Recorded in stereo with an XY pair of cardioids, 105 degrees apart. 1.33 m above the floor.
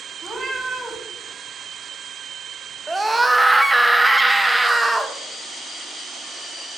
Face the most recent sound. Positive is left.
turn(degrees=-10)